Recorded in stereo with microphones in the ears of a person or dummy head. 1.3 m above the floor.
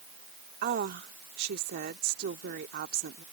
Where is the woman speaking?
55° right (ahead or behind).